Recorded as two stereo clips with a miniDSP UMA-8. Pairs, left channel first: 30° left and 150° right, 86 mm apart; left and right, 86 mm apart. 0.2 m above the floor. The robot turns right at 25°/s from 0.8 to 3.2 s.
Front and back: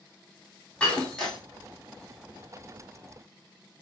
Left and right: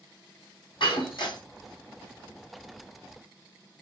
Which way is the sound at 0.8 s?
110° left.